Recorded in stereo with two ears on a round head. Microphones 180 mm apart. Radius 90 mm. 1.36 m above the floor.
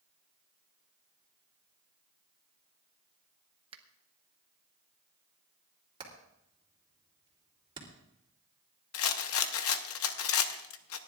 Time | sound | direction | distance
3.7 | a finger snap | 30° right (ahead or behind) | 1.0 m
6.0 | hammering | 25° right (ahead or behind) | 3 m
8.9 | a rattle | 75° left (ahead or behind) | 0.8 m